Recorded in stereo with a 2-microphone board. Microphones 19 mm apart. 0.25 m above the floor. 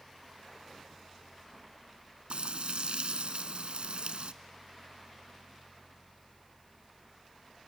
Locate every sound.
2.3 s frying: 75° right (ahead or behind), 0.7 m